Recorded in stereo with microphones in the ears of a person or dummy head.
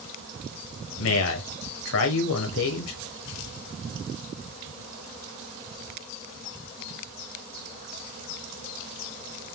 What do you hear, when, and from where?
1.0 s a man speaking: 75° left (ahead or behind), 0.7 m